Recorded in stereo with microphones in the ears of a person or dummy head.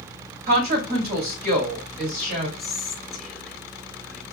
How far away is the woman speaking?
About 1.8 m.